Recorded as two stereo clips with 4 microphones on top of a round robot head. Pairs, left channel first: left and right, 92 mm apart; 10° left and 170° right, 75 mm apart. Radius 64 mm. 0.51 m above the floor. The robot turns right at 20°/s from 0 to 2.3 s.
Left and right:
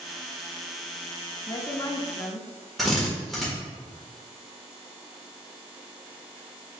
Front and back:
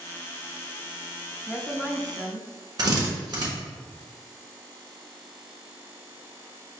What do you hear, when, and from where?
1.5 s a woman speaking: 95° left, 0.7 m; by 2.5 s 115° left, 0.7 m
2.8 s a drill: straight behind, 1.4 m